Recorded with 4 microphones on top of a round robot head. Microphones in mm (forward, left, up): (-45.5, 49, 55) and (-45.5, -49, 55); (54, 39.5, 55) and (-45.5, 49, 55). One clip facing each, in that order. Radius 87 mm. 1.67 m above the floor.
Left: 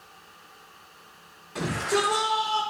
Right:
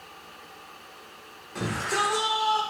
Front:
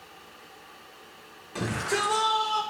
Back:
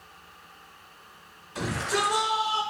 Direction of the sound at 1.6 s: 5° left.